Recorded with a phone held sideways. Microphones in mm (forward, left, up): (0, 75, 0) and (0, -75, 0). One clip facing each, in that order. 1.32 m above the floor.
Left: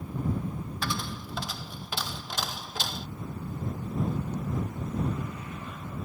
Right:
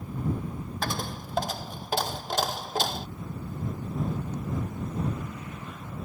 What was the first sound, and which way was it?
A dropped coin, 50° right (ahead or behind).